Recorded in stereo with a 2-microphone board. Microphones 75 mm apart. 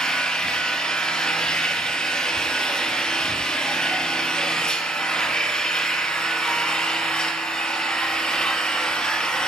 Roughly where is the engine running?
Centre.